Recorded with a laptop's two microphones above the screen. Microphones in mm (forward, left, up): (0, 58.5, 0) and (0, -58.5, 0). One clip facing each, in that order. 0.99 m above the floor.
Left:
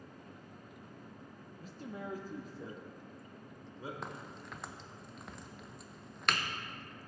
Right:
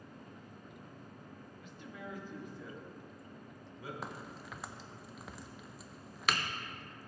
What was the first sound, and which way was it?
A man speaking, 40° left (ahead or behind).